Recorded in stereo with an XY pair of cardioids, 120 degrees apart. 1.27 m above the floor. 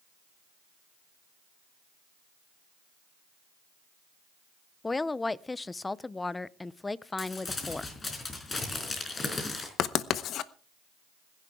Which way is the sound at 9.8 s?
60° left.